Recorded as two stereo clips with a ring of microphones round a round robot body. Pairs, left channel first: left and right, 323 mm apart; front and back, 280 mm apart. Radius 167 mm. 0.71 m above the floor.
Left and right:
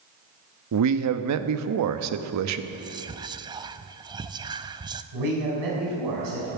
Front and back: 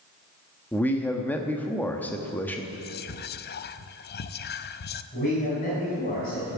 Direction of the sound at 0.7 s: 85° right.